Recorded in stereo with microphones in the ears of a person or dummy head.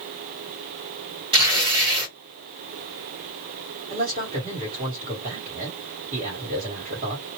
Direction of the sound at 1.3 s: 25° right (ahead or behind).